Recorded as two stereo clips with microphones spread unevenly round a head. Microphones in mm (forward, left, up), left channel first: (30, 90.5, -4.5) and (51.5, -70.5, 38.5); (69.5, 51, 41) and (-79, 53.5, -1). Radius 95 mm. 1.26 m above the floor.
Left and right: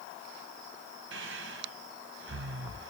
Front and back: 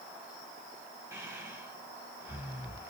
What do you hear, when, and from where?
1.1 s breathing: 105° right, 0.6 m